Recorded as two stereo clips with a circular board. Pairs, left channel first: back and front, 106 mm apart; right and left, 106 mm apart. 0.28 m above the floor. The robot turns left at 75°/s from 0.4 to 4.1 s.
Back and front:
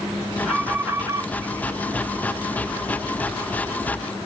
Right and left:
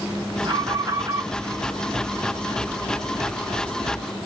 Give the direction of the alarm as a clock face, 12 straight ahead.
9 o'clock.